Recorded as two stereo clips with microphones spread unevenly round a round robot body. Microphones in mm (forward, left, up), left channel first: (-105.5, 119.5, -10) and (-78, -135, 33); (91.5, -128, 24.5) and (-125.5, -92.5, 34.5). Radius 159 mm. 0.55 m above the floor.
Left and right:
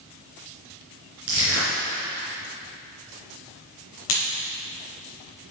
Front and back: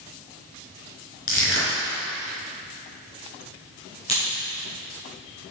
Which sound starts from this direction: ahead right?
Crushing, at 1.3 s.